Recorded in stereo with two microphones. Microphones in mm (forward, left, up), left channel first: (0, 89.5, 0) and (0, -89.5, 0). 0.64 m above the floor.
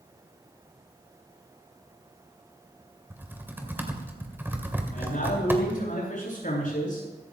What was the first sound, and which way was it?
Typing on a keyboard, 10° right (ahead or behind).